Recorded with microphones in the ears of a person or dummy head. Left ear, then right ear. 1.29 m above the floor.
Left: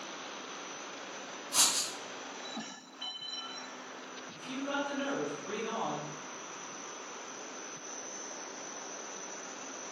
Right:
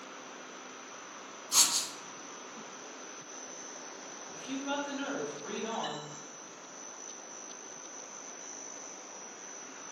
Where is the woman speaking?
35° right (ahead or behind), 0.7 m.